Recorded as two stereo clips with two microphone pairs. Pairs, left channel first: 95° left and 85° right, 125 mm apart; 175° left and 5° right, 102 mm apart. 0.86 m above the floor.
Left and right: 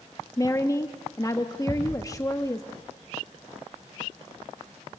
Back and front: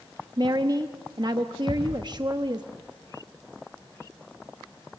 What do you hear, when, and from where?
0.4 s a woman speaking: 35° left, 0.9 m
1.7 s a thud: 145° right, 6.5 m